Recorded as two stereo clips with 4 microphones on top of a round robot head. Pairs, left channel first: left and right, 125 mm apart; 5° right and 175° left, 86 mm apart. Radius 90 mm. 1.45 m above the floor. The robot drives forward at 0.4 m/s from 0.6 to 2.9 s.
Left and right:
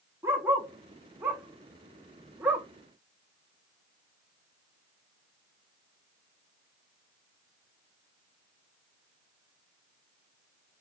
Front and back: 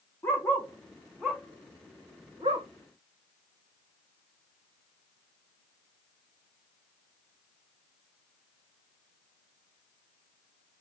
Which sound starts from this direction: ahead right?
A dog barking, at 0.2 s.